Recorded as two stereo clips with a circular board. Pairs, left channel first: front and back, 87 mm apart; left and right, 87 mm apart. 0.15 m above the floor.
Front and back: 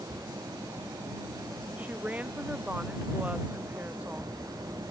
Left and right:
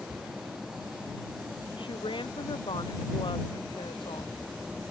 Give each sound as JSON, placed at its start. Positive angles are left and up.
{"t": 1.8, "sound": "a woman speaking", "azimuth_deg": 105}